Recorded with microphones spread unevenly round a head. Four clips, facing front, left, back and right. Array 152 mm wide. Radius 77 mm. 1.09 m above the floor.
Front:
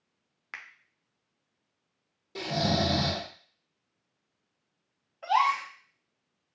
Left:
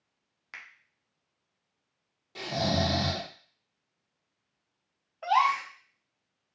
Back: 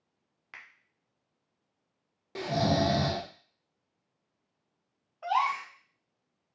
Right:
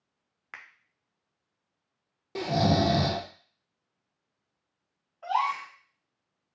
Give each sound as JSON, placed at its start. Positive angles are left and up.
{"t": 0.5, "sound": "a finger snap", "azimuth_deg": -30, "distance_m": 0.6}
{"t": 2.4, "sound": "snoring", "azimuth_deg": -100, "distance_m": 0.7}
{"t": 5.2, "sound": "a gasp", "azimuth_deg": 75, "distance_m": 0.9}